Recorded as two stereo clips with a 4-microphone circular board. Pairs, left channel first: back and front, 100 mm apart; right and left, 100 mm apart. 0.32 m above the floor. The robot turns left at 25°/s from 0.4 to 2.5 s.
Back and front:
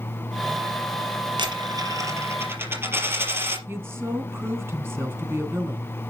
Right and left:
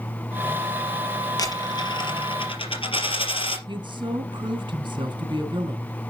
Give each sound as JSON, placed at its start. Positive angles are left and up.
{"t": 1.4, "sound": "a dropped coin", "azimuth_deg": -40, "distance_m": 3.5}
{"t": 3.7, "sound": "a woman speaking", "azimuth_deg": 60, "distance_m": 3.0}